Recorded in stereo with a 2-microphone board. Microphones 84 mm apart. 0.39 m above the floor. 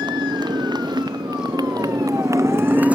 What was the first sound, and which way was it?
A motorcycle, 70° right (ahead or behind).